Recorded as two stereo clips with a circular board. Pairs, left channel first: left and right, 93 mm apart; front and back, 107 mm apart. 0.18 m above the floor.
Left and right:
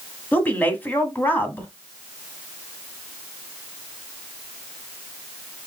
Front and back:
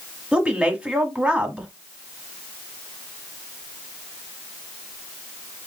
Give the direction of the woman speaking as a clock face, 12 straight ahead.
8 o'clock.